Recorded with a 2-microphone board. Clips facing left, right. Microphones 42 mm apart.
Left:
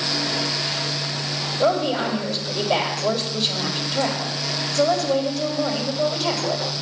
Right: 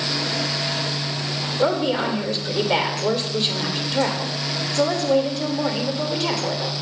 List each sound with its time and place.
1.6 s a woman speaking: 50° right (ahead or behind), 2.5 m